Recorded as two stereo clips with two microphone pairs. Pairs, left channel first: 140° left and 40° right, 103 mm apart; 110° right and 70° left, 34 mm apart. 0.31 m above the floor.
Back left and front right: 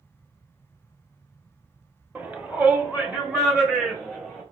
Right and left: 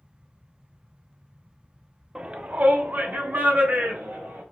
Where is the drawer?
I don't hear a drawer.